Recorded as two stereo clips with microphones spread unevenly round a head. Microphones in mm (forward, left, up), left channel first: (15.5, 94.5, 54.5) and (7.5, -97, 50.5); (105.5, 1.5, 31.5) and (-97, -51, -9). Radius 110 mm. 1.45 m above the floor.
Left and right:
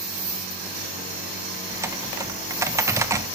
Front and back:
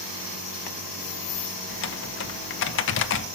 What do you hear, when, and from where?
1.7 s typing on a keyboard: 15° right, 0.8 m